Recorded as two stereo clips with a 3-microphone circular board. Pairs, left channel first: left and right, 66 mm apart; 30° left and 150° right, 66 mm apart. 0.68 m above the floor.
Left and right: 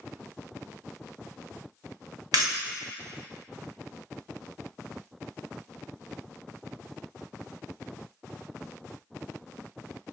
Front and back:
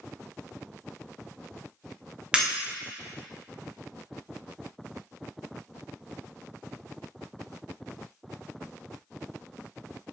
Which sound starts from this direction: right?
Breaking glass, at 2.3 s.